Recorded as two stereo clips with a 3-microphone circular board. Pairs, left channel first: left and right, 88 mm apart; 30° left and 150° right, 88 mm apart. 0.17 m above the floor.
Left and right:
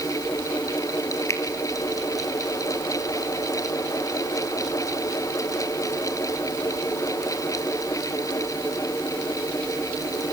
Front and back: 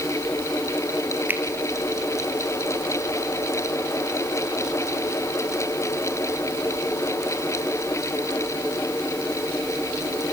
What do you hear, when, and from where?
1.3 s a finger snap: 145° left, 3 m